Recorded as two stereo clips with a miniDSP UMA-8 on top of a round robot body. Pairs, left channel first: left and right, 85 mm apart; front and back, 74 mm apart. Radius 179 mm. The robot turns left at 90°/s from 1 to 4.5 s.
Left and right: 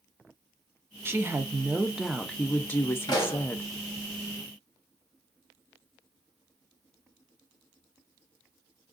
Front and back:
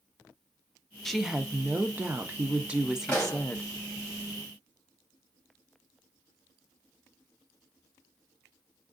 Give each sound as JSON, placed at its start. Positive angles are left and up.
{"t": 1.1, "sound": "a woman speaking", "azimuth_deg": -80, "distance_m": 0.9}
{"t": 3.1, "sound": "a pop", "azimuth_deg": 70, "distance_m": 2.5}